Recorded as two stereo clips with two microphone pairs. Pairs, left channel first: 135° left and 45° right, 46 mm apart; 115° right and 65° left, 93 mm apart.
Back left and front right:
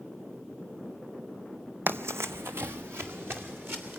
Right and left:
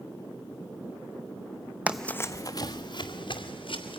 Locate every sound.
1.9 s running footsteps: 5° right, 0.6 m; by 4.0 s 90° right, 3 m